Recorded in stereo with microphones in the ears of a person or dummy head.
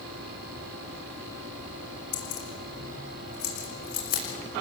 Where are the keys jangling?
50° left (ahead or behind), 5 m; by 4.2 s 45° left (ahead or behind), 6 m.